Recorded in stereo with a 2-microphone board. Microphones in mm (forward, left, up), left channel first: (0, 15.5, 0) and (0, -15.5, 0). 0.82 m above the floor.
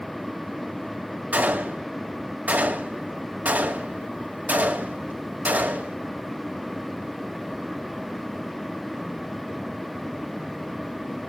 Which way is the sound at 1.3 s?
55° right (ahead or behind).